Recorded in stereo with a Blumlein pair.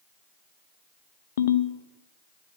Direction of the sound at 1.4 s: 60° left.